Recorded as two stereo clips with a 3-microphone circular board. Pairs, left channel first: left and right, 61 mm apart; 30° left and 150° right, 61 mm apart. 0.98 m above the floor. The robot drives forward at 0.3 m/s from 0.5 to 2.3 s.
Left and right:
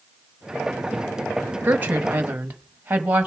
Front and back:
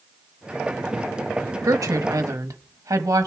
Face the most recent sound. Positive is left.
turn(degrees=-155)